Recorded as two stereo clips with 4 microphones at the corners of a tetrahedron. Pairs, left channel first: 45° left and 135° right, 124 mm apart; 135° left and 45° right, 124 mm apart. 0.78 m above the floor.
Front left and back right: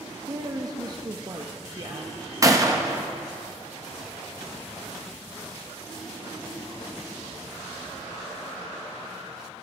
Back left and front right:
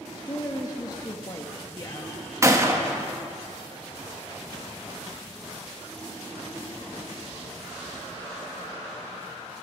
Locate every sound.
0.3 s a woman speaking: straight behind, 0.6 m
2.4 s a gunshot: 90° right, 0.8 m